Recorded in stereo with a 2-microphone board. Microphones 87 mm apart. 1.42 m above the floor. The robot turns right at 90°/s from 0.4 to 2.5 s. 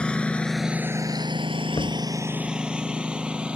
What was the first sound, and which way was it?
A lawn mower, 10° left (ahead or behind).